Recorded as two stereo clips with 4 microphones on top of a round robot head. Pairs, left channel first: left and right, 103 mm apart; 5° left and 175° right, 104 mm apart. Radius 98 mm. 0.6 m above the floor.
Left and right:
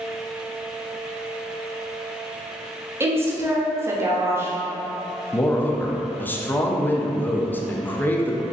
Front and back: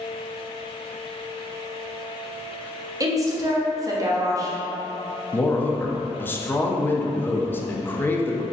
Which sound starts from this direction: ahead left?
A man speaking, at 5.3 s.